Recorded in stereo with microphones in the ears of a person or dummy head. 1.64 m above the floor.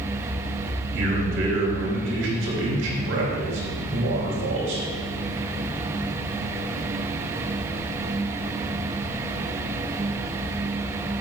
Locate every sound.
0.9 s a man speaking: 75° right (ahead or behind), 3 m